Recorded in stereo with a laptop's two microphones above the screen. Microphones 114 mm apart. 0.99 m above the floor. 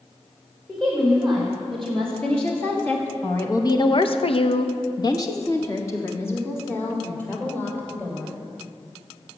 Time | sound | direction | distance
0.7 | a woman speaking | centre (ahead or behind) | 3.5 m